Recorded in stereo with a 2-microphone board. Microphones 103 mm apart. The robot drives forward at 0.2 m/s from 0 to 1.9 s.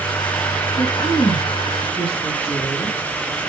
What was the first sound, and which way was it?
A woman speaking, 50° left (ahead or behind).